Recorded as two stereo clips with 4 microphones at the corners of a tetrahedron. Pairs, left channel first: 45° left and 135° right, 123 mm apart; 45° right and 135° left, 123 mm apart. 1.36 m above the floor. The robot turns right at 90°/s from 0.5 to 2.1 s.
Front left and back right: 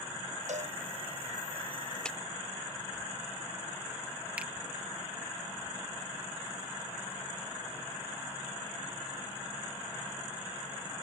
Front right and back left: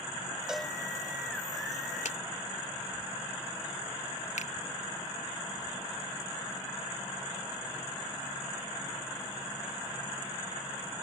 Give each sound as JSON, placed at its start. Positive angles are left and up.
{"t": 0.5, "sound": "a cowbell", "azimuth_deg": -140}
{"t": 2.0, "sound": "a clap", "azimuth_deg": -40}
{"t": 4.4, "sound": "a finger snap", "azimuth_deg": -55}